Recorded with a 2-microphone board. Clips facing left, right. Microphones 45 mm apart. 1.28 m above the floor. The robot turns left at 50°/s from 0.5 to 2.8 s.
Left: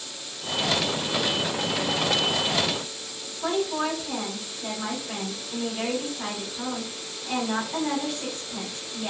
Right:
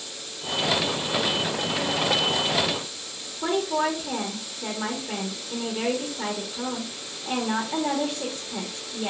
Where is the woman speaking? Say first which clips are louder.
Right 2 dB; 65° right (ahead or behind), 1.1 m.